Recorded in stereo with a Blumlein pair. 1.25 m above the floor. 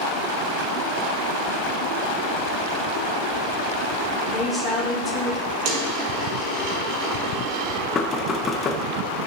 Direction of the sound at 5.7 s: 45° right.